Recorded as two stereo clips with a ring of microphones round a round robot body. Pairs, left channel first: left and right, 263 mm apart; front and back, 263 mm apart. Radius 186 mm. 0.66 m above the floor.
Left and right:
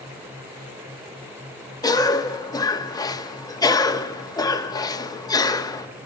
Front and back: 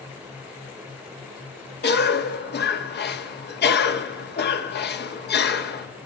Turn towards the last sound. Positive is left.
turn(degrees=20)